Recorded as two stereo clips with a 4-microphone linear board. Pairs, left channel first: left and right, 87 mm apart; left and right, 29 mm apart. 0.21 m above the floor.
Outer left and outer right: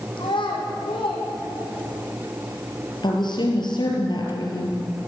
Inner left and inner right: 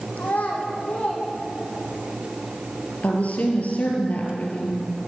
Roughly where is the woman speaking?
Left.